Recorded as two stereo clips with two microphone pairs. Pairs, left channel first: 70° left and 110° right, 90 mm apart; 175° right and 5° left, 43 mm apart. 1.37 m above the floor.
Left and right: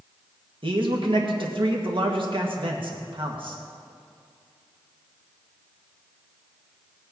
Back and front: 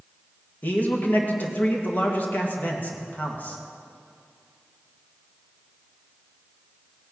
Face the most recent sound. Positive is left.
turn(degrees=-125)